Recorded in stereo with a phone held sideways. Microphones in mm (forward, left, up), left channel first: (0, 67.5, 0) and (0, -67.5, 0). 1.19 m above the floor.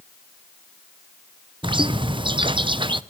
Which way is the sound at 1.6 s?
35° right (ahead or behind).